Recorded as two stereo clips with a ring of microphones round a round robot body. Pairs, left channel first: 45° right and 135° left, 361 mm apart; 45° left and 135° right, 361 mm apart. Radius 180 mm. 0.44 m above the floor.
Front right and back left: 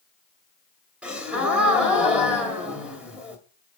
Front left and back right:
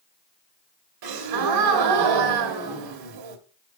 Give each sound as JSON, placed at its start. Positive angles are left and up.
{"t": 1.0, "sound": "a gasp", "azimuth_deg": -140, "distance_m": 2.0}